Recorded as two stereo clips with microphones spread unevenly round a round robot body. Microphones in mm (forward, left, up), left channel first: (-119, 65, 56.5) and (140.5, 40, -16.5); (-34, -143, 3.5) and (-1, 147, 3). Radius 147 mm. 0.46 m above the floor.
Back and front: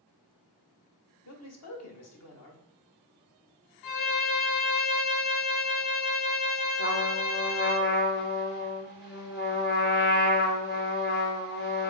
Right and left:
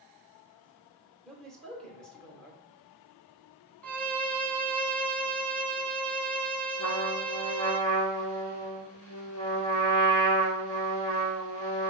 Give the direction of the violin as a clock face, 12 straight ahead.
6 o'clock.